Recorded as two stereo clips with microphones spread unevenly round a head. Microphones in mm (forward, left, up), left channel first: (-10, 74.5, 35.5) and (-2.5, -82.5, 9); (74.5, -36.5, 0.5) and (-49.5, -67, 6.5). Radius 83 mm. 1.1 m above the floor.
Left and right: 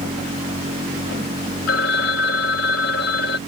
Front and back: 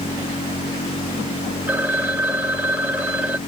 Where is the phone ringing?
115° left.